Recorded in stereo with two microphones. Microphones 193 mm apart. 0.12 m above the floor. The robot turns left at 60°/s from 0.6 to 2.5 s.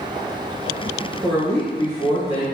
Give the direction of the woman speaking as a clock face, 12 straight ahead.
1 o'clock.